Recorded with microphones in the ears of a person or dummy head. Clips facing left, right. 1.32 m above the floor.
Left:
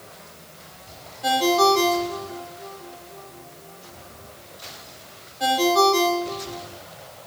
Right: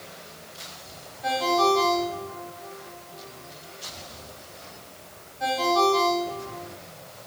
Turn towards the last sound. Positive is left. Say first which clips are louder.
# left 4 dB
turn(degrees=40)  # may be behind; listen again after turning